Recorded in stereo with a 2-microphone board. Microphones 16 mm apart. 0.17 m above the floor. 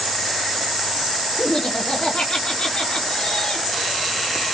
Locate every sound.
1.4 s laughter: 50° left (ahead or behind), 5 m